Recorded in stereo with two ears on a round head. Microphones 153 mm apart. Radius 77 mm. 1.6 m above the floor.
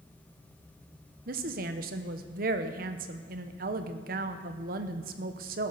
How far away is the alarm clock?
I don't hear an alarm clock.